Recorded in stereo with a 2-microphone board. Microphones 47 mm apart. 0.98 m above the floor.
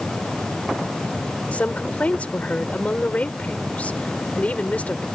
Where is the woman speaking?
30° left (ahead or behind).